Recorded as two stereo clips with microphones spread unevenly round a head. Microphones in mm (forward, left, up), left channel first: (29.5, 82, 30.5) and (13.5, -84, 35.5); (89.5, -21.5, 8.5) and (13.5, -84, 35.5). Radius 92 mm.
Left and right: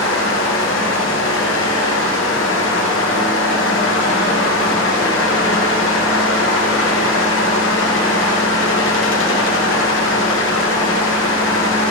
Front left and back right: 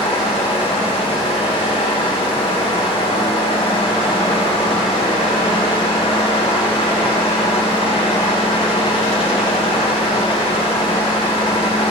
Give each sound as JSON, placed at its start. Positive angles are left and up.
{"t": 0.0, "sound": "a fan", "azimuth_deg": 105, "distance_m": 1.1}